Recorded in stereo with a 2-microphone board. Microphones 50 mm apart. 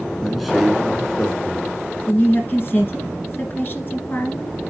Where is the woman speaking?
40° left (ahead or behind), 2 m.